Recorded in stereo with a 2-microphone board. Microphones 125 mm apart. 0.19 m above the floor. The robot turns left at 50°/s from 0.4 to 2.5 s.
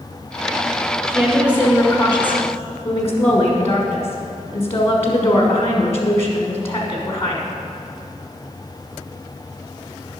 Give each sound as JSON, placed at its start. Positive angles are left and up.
{"t": 1.1, "sound": "a woman speaking", "azimuth_deg": -145, "distance_m": 1.3}